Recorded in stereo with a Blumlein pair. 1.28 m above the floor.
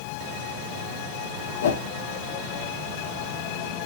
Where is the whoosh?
60° left, 0.5 m.